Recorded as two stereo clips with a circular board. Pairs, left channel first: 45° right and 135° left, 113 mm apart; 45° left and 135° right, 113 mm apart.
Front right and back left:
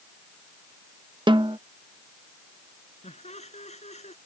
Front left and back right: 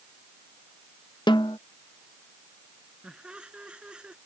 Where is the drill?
No drill in this recording.